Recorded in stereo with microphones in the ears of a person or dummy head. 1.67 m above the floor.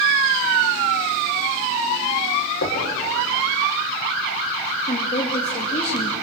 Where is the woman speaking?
35° left (ahead or behind), 2.5 m.